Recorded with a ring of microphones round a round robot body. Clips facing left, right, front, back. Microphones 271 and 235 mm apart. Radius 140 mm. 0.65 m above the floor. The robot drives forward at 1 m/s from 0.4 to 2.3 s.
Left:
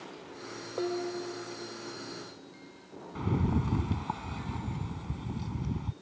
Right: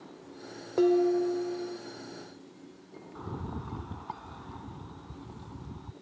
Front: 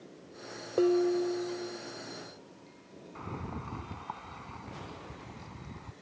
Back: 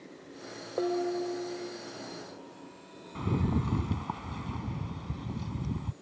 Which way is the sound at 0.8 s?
60° right.